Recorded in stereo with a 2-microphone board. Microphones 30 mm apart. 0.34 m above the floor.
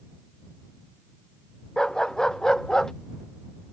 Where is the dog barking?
25° left (ahead or behind).